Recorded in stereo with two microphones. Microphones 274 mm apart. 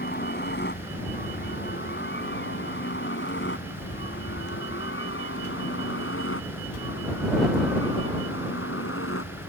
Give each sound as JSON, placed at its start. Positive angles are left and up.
{"t": 0.0, "sound": "a helicopter", "side_deg": 35}